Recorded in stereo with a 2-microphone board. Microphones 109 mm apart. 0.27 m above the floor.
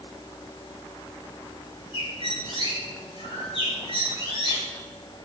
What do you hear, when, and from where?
1.9 s a bird: 55° left (ahead or behind), 4 m